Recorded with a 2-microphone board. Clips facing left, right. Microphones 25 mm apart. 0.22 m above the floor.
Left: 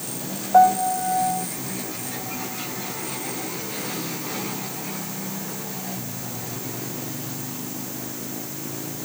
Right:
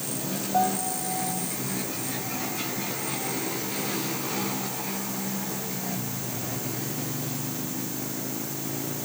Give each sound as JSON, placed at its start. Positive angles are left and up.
{"t": 0.5, "sound": "a piano", "side_deg": 40}